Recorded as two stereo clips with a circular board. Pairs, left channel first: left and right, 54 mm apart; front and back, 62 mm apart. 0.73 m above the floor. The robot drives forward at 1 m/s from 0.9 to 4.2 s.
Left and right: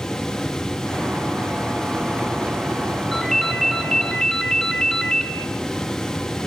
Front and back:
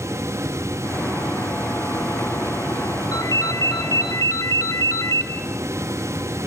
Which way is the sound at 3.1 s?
5° left.